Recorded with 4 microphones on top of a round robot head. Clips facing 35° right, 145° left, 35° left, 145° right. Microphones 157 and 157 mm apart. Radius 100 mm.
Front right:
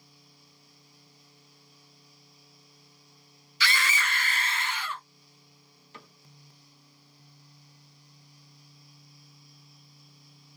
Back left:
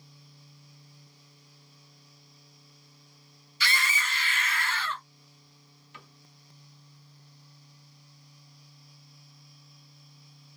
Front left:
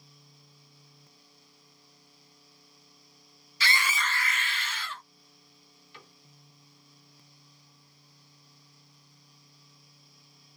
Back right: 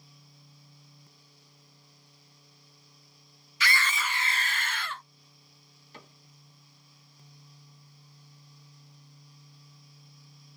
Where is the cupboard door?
90° right, 1.7 m.